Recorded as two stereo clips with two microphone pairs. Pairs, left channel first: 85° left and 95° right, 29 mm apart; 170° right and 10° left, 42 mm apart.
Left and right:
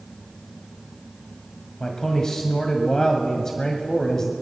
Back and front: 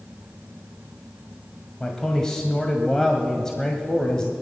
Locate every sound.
1.8 s a man speaking: 125° left, 1.6 m